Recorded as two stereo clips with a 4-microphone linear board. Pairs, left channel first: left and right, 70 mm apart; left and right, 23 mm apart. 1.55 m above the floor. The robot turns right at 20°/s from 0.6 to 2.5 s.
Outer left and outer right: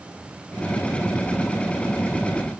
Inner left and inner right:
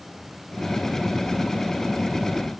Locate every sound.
Only background noise.